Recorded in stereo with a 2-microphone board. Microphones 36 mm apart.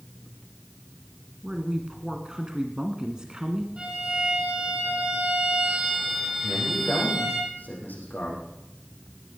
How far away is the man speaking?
About 7 m.